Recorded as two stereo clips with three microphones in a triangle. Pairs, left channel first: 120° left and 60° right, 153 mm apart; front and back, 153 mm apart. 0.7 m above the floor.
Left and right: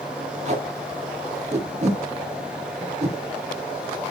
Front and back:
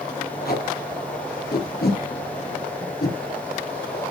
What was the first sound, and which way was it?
Tape being pulled, 15° right.